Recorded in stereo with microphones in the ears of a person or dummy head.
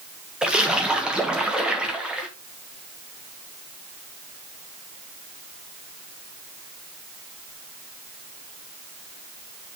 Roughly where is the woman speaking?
I don't hear a woman speaking.